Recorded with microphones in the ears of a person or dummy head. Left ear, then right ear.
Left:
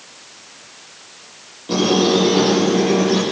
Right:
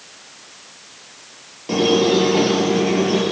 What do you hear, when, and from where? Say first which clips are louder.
1.7 s a squeak: even; 35° right (ahead or behind), 5.5 m